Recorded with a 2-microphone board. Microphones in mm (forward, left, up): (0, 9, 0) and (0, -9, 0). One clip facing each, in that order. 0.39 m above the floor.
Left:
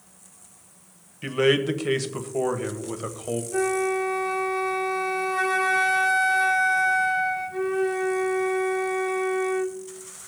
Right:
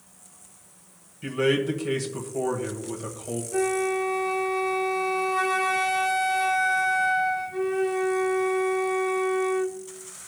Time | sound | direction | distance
1.2 | a man speaking | 35° left (ahead or behind) | 1.3 m
3.5 | a flute | 5° right (ahead or behind) | 0.6 m